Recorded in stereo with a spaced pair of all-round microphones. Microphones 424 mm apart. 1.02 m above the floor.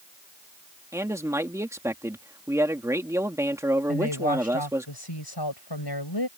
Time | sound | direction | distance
0.9 | a man speaking | 5° right (ahead or behind) | ?
3.9 | a woman speaking | 70° left (ahead or behind) | ?